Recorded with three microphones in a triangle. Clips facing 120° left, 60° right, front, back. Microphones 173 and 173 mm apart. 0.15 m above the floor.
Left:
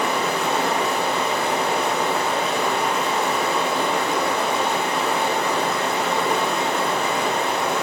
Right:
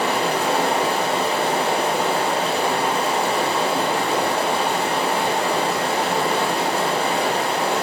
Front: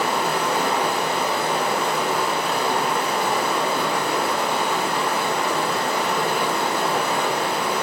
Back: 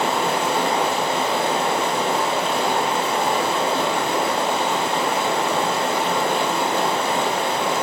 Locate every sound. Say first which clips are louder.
0.0 s running water: right 2 dB, back 1 dB; 115° right, 1.7 m